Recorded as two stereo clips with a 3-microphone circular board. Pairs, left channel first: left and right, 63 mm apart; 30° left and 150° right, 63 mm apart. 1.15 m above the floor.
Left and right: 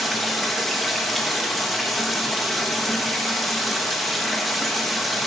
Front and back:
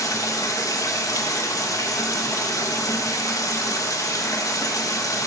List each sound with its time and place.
0.0 s running water: straight ahead, 0.8 m